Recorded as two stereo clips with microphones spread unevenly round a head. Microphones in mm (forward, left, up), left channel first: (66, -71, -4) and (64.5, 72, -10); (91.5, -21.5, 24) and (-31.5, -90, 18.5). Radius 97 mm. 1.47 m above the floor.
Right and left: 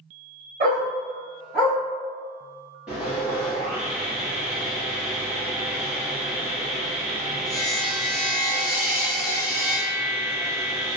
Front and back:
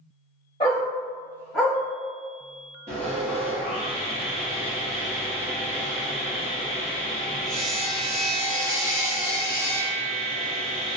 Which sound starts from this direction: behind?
Sawing, at 2.9 s.